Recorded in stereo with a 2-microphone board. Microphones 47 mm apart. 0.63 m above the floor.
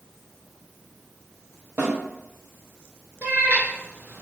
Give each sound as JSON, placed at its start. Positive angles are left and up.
{"t": 1.8, "sound": "a snare drum", "side_deg": -50, "distance_m": 1.1}
{"t": 3.2, "sound": "a cat meowing", "side_deg": -40, "distance_m": 0.7}